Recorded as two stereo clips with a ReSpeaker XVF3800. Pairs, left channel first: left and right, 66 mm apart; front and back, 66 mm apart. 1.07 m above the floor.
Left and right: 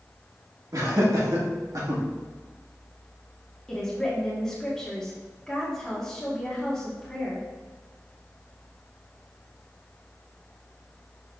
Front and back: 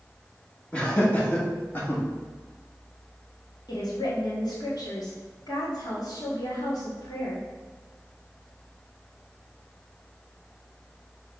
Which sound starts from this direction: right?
Laughter, at 0.7 s.